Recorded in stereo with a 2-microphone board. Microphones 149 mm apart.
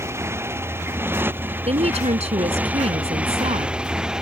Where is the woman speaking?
45° right (ahead or behind).